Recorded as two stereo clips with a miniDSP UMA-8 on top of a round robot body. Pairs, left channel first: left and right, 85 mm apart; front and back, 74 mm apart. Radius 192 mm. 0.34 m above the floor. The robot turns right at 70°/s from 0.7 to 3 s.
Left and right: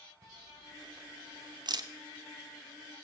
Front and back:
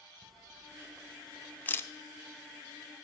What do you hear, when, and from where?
0.2 s a camera shutter: 135° right, 0.7 m; by 1.9 s 50° right, 0.7 m